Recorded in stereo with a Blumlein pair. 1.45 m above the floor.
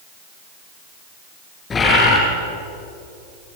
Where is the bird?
20° left, 9 m.